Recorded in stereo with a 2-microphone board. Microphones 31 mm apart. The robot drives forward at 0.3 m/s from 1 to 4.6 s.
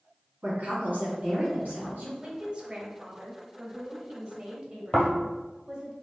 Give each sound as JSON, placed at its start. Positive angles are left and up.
{"t": 0.4, "sound": "a woman speaking", "side_deg": -65, "distance_m": 2.0}
{"t": 2.2, "sound": "a woman speaking", "side_deg": -35, "distance_m": 1.1}
{"t": 4.9, "sound": "snoring", "side_deg": 25, "distance_m": 1.6}